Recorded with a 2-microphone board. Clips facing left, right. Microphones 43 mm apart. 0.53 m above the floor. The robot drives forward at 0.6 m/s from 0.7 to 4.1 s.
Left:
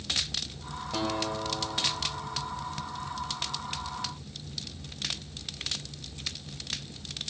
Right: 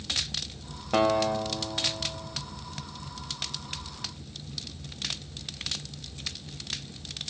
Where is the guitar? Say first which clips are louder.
Right 8 dB; 50° right (ahead or behind), 1.1 m; by 2.4 s 30° right (ahead or behind), 1.8 m.